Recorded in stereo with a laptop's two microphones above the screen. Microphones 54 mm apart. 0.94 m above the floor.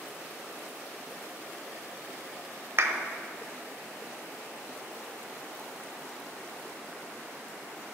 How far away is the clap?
About 0.8 m.